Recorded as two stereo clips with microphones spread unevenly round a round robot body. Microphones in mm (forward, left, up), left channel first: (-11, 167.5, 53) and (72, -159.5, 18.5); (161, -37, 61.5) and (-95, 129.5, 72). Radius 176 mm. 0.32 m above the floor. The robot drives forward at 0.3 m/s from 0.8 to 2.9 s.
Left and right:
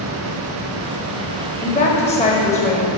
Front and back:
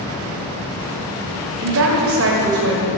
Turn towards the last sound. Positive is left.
turn(degrees=175)